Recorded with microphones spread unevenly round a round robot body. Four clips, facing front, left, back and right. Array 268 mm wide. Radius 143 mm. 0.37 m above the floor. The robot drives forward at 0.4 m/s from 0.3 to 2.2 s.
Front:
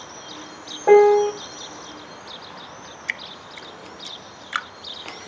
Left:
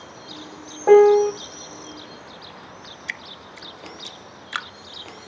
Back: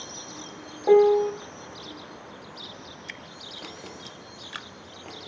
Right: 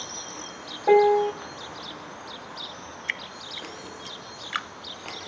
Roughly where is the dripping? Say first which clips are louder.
Left 1 dB, front 7 dB; ahead left.